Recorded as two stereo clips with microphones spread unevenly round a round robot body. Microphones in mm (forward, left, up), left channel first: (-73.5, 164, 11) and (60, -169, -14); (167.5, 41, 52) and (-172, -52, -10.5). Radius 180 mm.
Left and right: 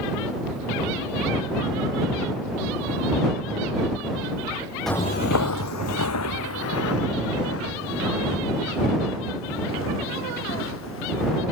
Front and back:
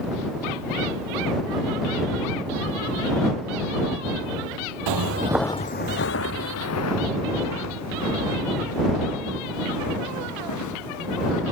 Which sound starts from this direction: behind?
Footsteps, at 4.9 s.